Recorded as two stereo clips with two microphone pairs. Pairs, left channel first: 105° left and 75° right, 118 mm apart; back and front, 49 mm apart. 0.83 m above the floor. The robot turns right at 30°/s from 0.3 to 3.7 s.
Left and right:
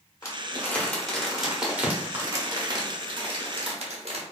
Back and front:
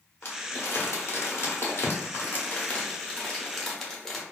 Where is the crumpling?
160° left, 0.8 m; by 4.2 s 95° right, 0.8 m.